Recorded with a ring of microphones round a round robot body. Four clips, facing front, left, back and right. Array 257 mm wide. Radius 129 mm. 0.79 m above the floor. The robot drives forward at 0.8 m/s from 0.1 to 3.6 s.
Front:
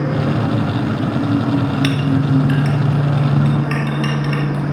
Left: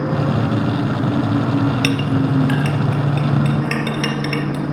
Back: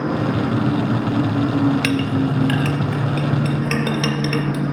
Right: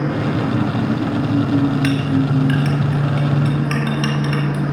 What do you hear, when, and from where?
1.8 s a clink: 125° left, 0.9 m; by 4.7 s 160° left, 2 m